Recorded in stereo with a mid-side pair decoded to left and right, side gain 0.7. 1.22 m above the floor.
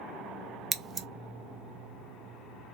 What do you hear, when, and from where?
0.7 s scissors: 30° right, 0.5 m